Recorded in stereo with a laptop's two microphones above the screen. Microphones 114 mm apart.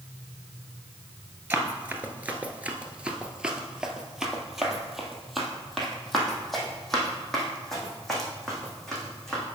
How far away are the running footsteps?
About 1.0 m.